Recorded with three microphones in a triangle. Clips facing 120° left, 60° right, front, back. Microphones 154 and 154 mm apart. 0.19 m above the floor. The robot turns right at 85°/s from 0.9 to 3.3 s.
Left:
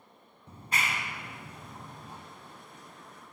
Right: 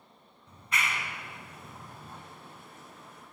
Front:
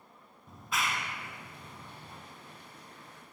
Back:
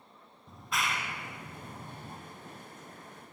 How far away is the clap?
About 1.0 m.